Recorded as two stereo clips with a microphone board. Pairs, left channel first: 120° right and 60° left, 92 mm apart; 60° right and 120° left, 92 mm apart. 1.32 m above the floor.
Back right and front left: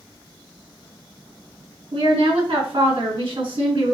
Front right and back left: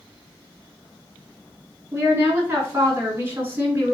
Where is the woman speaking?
60° left, 3.5 m.